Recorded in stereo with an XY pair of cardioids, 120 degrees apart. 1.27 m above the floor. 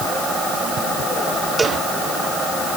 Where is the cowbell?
25° right.